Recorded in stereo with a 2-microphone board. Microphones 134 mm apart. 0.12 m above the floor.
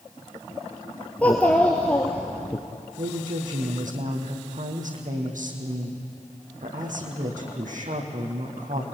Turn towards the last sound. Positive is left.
turn(degrees=-75)  # may be behind; listen again after turning